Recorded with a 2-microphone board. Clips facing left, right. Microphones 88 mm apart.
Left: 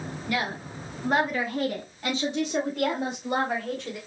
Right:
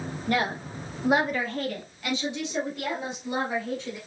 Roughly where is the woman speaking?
Right.